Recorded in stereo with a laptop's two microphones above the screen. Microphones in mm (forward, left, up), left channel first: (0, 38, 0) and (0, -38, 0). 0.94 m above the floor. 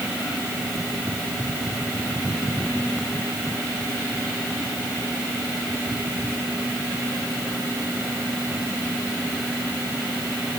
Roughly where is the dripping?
No dripping in this recording.